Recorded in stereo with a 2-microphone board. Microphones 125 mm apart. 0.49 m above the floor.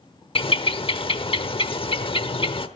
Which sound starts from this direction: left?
A bird, at 0.3 s.